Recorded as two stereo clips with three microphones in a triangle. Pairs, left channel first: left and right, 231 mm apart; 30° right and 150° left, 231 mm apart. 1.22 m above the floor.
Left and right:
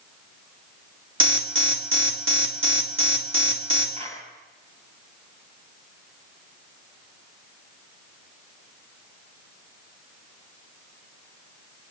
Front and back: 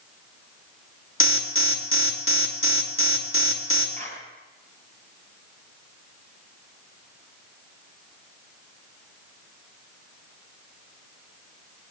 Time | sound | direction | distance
1.2 | an alarm | 60° right | 2 m
4.0 | a clap | 155° right | 6.5 m